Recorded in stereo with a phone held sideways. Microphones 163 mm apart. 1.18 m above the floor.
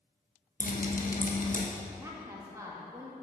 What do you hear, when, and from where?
0.6 s dripping: 55° left (ahead or behind), 1.2 m
1.9 s a woman speaking: 20° right (ahead or behind), 2 m